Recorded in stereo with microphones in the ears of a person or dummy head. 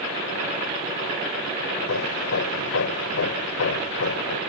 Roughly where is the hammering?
Left.